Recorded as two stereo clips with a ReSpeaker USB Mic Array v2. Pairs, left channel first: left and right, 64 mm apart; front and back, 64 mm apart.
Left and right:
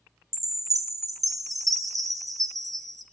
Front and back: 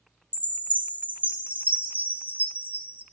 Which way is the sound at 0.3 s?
115° right.